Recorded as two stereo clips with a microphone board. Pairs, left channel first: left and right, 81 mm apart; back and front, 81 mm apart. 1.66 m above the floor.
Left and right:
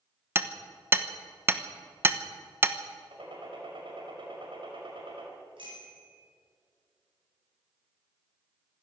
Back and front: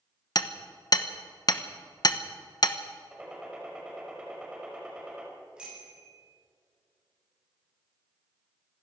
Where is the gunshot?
75° right, 5 m.